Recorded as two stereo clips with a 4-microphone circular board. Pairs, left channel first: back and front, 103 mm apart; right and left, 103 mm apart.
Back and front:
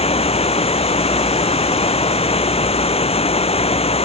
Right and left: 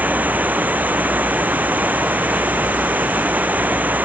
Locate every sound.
0.0 s running water: 165° left